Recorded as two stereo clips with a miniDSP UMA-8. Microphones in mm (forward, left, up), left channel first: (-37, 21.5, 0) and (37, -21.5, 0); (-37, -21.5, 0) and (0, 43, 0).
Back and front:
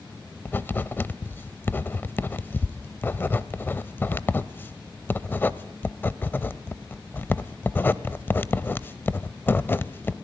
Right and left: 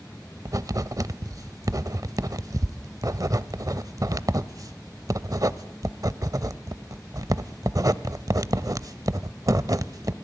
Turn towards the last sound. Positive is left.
turn(degrees=90)